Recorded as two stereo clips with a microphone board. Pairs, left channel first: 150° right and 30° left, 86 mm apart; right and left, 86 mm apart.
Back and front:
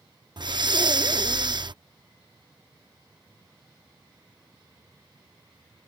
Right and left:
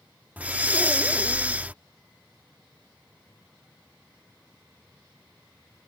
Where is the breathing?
20° left.